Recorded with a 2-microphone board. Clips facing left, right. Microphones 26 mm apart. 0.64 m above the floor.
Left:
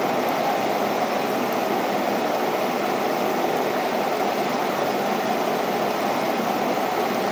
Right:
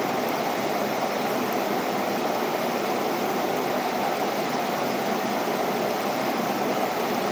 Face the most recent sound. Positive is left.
No sound to turn to.